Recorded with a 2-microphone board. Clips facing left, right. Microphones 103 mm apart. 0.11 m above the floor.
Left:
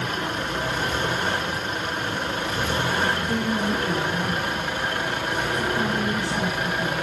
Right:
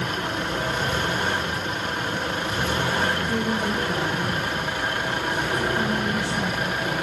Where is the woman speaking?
40° left (ahead or behind), 5.5 m.